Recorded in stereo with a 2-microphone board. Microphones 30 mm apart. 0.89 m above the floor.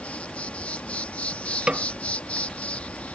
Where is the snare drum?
40° right (ahead or behind).